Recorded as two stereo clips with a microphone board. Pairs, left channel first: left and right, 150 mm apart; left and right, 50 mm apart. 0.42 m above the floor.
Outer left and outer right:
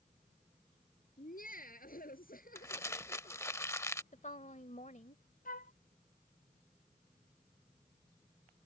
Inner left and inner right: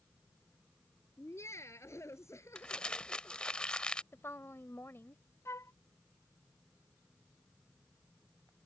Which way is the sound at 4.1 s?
55° left (ahead or behind).